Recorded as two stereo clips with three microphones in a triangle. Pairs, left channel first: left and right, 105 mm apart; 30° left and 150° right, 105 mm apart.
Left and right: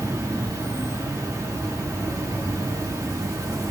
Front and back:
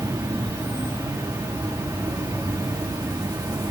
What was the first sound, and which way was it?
An insect, 125° right.